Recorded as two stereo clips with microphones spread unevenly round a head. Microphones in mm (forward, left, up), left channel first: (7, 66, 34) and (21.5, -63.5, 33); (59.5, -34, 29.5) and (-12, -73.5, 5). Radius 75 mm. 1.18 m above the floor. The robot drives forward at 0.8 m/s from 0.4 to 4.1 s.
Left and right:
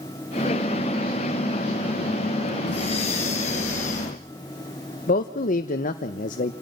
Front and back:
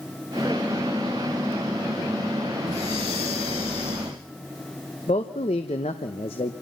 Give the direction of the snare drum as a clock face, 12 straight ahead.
No snare drum in this recording.